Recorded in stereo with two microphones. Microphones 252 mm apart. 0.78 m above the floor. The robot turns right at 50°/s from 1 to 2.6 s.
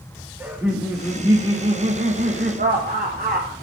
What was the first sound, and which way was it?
Laughter, 170° right.